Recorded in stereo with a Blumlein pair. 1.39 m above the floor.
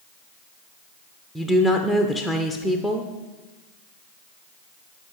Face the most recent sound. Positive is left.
turn(degrees=-5)